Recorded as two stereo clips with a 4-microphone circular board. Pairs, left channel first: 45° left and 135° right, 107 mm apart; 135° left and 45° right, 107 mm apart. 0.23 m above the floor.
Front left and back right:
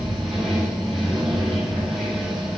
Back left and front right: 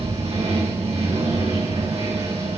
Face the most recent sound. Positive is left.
turn(degrees=-45)